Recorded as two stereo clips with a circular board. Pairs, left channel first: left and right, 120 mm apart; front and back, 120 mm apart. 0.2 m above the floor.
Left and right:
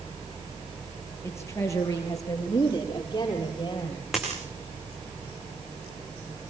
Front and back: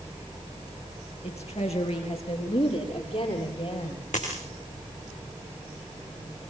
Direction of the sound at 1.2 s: 25° left.